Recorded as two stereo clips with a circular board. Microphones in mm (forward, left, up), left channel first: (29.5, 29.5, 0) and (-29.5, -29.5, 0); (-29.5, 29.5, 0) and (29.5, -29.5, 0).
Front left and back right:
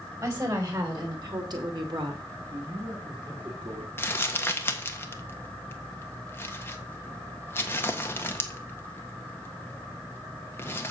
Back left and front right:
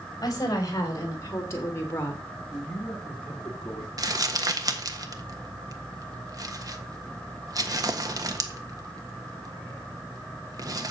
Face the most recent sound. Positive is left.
turn(degrees=-15)